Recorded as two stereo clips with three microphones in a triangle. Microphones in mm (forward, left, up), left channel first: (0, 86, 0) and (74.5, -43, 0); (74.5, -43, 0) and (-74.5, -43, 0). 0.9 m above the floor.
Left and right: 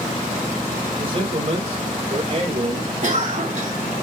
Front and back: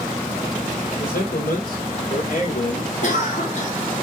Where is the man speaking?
10° right, 4 m; by 2.9 s 25° right, 3.5 m.